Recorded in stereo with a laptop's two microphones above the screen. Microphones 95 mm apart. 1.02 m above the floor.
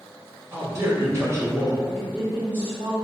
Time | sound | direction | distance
0.5 | a man speaking | 30° right (ahead or behind) | 1.2 m
1.8 | a woman speaking | 20° right (ahead or behind) | 1.4 m